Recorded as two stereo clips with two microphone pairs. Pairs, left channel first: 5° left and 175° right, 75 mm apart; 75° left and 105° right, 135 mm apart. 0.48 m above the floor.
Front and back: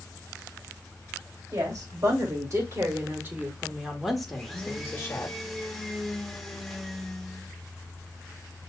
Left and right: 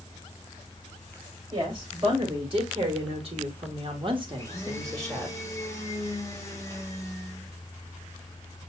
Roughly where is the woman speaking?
Behind right.